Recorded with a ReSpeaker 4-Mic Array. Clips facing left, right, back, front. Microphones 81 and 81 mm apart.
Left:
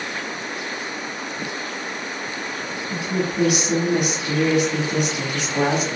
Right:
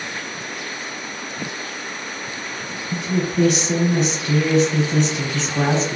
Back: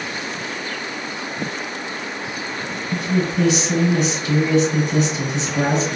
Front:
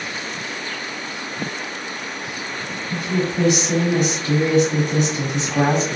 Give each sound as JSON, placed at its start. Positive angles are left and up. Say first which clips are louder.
{"t": 2.9, "sound": "a woman speaking", "louder": "right 2 dB, back 1 dB", "azimuth_deg": 15, "distance_m": 1.5}